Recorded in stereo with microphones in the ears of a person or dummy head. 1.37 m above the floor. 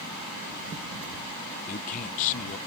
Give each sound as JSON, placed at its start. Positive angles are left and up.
{"t": 1.7, "sound": "a man speaking", "side_deg": 40}